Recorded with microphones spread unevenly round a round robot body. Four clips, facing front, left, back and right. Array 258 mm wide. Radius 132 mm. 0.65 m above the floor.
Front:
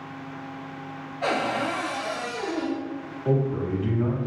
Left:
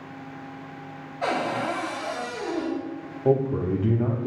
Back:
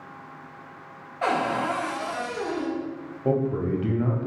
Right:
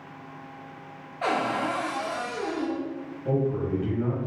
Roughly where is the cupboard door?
Behind right.